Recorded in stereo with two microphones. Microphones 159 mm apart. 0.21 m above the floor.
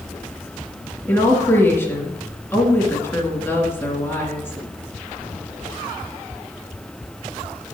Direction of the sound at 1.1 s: 15° left (ahead or behind).